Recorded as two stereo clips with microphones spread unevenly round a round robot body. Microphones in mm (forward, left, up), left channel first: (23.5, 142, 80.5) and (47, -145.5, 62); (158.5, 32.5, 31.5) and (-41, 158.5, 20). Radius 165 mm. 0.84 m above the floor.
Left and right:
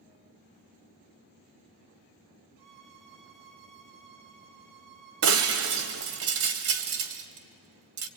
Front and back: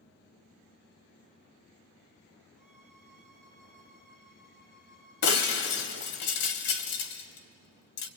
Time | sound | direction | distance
2.6 | a violin | 95° right | 2.5 m
5.2 | breaking glass | 45° right | 1.5 m